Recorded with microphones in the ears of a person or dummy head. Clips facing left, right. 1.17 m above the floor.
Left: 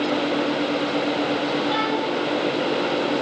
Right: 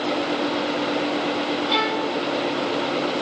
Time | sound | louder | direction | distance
1.7 | a violin | left 1 dB | 35° right (ahead or behind) | 9 m